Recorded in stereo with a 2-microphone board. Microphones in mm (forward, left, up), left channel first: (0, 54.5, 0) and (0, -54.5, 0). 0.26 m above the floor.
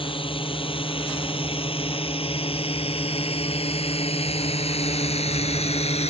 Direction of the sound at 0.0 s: 55° left (ahead or behind).